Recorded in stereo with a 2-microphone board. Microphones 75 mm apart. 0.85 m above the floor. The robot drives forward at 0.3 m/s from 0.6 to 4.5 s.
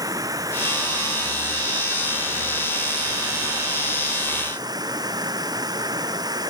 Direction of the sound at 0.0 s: 55° right (ahead or behind).